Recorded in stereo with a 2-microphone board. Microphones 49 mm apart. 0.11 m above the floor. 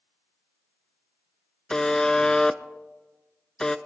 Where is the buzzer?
15° left (ahead or behind), 0.5 m.